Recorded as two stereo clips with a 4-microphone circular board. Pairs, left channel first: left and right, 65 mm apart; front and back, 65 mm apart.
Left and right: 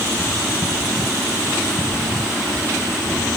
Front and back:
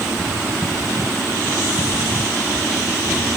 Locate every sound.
Only background noise.